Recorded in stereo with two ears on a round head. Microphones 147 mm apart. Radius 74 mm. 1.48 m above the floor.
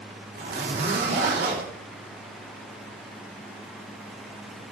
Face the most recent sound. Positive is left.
turn(degrees=-65)  # may be behind; listen again after turning